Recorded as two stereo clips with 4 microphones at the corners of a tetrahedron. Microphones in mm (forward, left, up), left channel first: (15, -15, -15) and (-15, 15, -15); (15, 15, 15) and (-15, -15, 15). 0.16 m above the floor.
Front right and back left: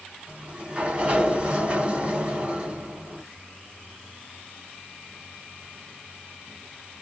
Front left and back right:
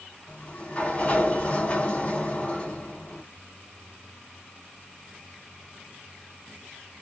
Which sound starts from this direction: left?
A sliding door, at 0.3 s.